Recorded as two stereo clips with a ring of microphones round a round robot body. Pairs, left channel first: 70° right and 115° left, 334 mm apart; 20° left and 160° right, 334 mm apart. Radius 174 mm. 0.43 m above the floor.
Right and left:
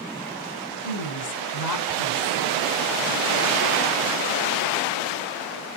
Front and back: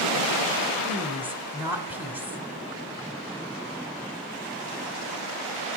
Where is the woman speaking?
75° right, 1.6 m.